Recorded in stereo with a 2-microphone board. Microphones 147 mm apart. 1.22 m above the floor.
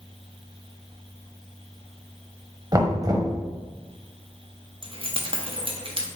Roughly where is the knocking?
Right.